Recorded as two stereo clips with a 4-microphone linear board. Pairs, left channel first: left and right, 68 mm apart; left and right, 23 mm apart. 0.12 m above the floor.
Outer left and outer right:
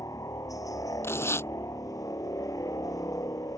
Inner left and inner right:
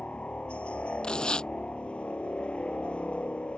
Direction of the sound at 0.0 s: 60° left (ahead or behind).